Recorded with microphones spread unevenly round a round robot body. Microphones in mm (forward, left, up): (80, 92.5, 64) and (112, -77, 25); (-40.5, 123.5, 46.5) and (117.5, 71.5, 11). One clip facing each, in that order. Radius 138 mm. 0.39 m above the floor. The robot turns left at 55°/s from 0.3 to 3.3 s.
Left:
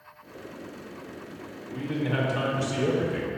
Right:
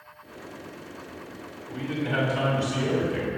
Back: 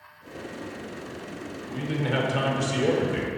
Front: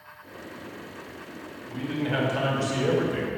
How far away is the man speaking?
About 1.5 m.